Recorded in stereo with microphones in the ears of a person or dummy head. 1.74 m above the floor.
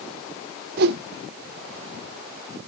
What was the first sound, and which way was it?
A whoosh, 60° right (ahead or behind).